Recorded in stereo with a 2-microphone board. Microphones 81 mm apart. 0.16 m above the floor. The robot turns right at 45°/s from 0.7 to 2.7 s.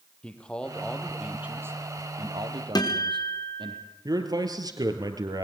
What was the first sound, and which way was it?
A man speaking, 165° left.